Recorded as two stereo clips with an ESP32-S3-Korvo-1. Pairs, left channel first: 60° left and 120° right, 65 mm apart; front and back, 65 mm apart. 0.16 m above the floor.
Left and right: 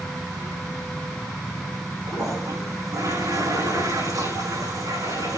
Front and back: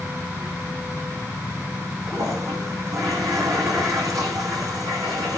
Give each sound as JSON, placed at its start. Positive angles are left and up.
{"t": 2.1, "sound": "a toilet flushing", "azimuth_deg": -145, "distance_m": 6.5}